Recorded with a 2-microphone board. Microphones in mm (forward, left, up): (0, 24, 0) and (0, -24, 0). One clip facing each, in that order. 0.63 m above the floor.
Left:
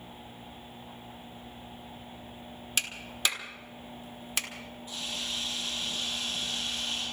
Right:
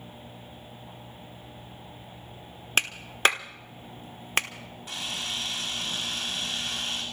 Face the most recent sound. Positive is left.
turn(degrees=-80)